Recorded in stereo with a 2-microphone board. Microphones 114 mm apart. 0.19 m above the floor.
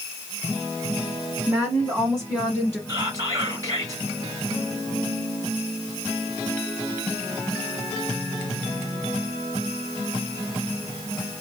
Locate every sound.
1.5 s a woman speaking: 15° right (ahead or behind), 1.1 m; by 2.8 s centre (ahead or behind), 1.7 m
2.9 s whispering: 30° right (ahead or behind), 1.7 m